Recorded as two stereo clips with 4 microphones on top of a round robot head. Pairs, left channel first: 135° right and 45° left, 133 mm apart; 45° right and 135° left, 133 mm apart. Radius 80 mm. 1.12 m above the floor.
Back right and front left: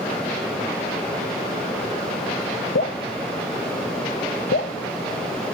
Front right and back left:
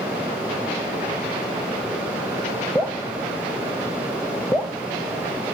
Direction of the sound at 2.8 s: 130° right.